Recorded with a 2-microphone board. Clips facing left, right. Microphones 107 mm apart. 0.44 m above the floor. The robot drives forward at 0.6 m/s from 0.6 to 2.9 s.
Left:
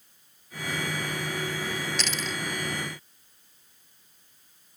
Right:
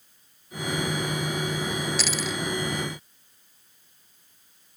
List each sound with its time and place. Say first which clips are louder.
2.0 s a dropped coin: right 3 dB; 5° right (ahead or behind)